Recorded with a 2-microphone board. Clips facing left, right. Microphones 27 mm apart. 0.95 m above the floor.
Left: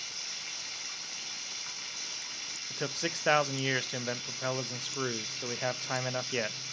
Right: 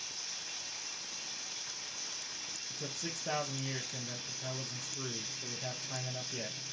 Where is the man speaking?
60° left (ahead or behind), 0.5 m.